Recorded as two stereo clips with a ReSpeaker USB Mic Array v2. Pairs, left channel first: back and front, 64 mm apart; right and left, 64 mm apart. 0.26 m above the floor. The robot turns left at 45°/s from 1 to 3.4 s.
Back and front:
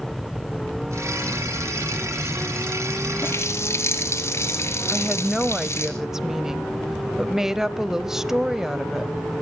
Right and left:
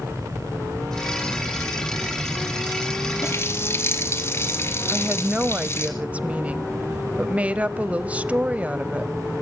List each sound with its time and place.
3.2 s a running tap: 130° right, 3 m; by 5.9 s 140° right, 3 m
4.9 s a woman speaking: 70° left, 1.0 m